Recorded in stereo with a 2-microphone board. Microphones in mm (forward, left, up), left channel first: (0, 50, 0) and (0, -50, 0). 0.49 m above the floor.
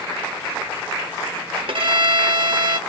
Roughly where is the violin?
Right.